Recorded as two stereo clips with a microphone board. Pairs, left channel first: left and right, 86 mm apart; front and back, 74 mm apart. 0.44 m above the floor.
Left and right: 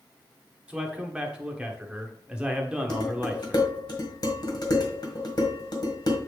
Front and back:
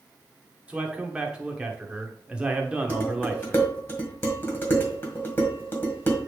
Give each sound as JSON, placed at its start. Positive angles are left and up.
{"t": 0.7, "sound": "a man speaking", "azimuth_deg": -140, "distance_m": 1.0}
{"t": 2.9, "sound": "dishes clattering", "azimuth_deg": 60, "distance_m": 1.6}